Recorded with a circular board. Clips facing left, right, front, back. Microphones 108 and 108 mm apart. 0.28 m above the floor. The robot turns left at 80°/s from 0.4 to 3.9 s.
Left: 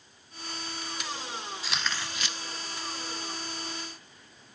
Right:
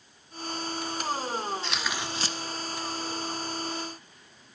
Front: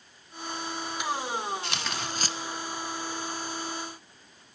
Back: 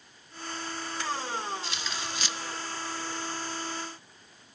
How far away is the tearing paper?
About 0.7 m.